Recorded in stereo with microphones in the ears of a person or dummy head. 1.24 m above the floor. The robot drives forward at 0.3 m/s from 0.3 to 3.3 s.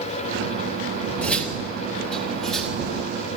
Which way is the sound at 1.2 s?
15° left (ahead or behind).